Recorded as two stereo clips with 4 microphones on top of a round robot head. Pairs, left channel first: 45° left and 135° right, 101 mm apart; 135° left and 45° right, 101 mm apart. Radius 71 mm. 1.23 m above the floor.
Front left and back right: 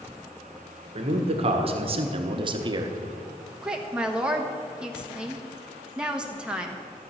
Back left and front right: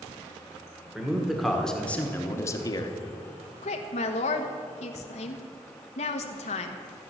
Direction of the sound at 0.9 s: 125° right.